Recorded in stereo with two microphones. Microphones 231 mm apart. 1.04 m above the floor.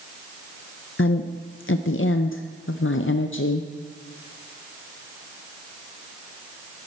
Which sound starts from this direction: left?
A woman speaking, at 1.0 s.